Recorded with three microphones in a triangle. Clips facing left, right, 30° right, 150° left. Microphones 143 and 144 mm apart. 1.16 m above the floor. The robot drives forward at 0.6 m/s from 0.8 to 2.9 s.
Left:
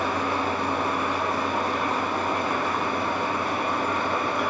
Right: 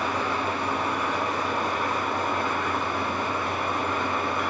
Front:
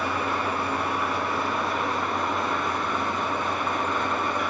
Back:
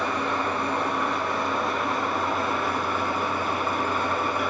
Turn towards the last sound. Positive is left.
turn(degrees=65)